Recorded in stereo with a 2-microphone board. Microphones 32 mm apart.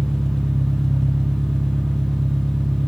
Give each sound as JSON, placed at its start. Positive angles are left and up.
{"t": 0.0, "sound": "an engine running", "side_deg": 15, "distance_m": 4.0}